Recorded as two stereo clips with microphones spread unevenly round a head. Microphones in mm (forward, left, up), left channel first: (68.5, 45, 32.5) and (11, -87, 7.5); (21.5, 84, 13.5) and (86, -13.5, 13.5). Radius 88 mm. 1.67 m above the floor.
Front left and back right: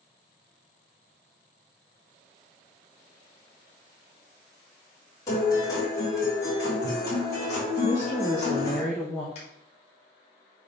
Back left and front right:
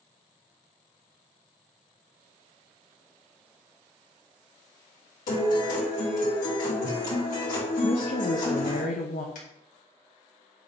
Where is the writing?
I don't hear writing.